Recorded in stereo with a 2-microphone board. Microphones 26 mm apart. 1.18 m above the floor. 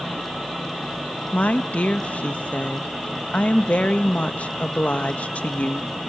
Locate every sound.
1.3 s a woman speaking: 70° left (ahead or behind), 1.2 m